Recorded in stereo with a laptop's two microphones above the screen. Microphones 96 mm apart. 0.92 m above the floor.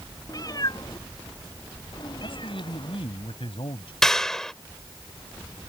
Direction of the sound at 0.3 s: 40° left (ahead or behind).